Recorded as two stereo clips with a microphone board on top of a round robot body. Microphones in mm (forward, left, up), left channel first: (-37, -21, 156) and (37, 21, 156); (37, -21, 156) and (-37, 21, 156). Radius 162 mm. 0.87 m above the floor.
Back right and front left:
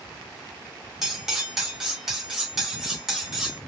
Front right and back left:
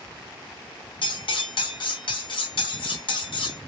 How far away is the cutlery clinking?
About 1.0 m.